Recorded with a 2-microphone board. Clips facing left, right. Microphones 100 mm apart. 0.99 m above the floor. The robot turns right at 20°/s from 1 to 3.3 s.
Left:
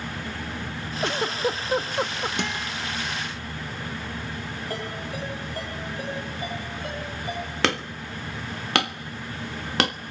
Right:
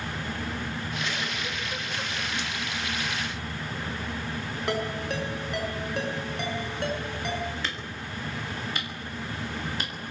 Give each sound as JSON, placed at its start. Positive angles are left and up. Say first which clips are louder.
{"t": 1.0, "sound": "a giggle", "louder": "left 7 dB", "side_deg": 60, "distance_m": 1.1}
{"t": 2.4, "sound": "a guitar", "louder": "left 4 dB", "side_deg": 60, "distance_m": 1.1}
{"t": 4.7, "sound": "a ringtone", "louder": "right 6 dB", "side_deg": -90, "distance_m": 7.5}
{"t": 7.6, "sound": "hammering", "louder": "left 8 dB", "side_deg": 75, "distance_m": 1.2}